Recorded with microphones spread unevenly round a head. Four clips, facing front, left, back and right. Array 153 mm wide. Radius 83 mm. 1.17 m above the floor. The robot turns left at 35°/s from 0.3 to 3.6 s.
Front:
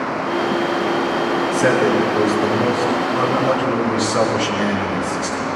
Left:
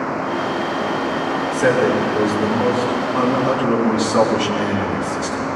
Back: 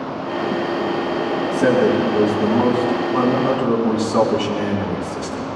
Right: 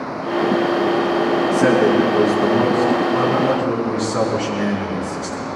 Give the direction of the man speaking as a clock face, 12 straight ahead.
4 o'clock.